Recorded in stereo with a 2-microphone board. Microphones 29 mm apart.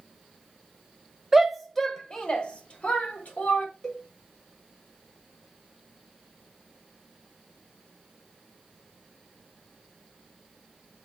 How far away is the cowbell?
About 1.3 m.